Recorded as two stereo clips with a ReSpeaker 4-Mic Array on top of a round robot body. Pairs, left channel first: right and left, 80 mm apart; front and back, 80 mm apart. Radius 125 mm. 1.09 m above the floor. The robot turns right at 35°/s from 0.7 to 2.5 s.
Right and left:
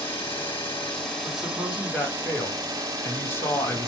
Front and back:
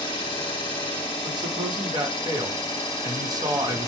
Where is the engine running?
25° right, 0.9 m; by 3.9 s 40° left, 0.9 m.